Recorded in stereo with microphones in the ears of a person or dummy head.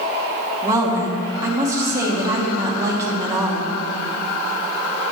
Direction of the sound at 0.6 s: 15° right (ahead or behind).